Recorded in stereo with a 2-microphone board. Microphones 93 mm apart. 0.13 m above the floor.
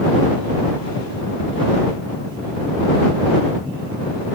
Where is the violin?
No violin in this recording.